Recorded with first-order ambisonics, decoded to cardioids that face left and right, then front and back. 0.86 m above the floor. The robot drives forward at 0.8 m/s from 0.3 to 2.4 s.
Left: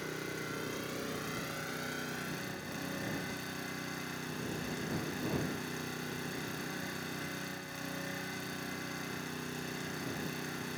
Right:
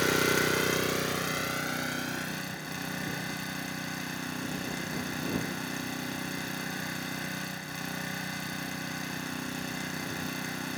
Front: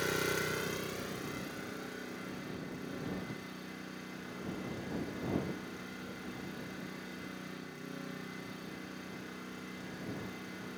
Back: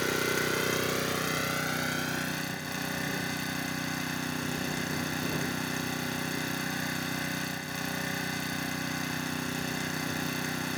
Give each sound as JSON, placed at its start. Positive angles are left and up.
{"t": 0.0, "sound": "an engine running", "azimuth_deg": -110, "distance_m": 0.9}